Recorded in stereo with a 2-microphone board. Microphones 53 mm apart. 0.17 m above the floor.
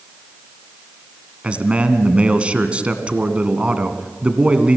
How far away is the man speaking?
About 1.9 m.